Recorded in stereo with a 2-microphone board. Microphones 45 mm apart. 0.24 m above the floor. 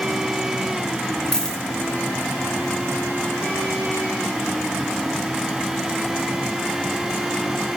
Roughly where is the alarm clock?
No alarm clock in this recording.